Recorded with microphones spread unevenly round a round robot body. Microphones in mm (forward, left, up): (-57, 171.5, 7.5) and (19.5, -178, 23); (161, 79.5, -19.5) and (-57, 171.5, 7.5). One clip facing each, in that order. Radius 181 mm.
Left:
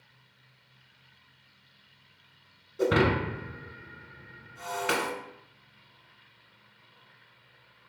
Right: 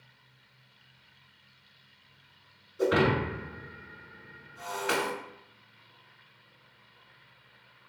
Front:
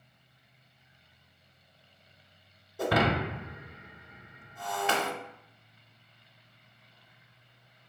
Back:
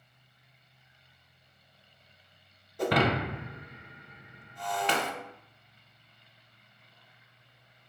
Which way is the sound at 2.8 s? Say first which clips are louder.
Left 1 dB, back 1 dB; 65° left.